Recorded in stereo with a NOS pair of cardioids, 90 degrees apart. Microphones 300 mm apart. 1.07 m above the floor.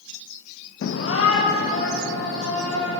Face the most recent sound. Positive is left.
turn(degrees=45)